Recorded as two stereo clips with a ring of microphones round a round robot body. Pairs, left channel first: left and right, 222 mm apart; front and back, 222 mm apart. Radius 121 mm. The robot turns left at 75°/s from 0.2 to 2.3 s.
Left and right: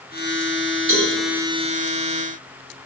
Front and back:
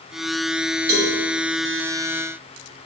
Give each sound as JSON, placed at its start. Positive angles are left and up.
{"t": 0.9, "sound": "a cowbell", "azimuth_deg": -130, "distance_m": 0.8}